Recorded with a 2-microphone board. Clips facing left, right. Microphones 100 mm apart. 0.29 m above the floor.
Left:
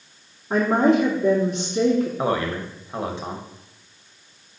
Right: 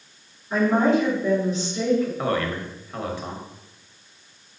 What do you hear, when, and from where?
0.5 s a woman speaking: 60° left (ahead or behind), 2.5 m
2.2 s a man speaking: 25° left (ahead or behind), 1.0 m